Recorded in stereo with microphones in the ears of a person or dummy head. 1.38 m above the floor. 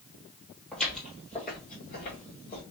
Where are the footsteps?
5° left (ahead or behind), 1.6 m; by 2.6 s 10° left (ahead or behind), 1.3 m.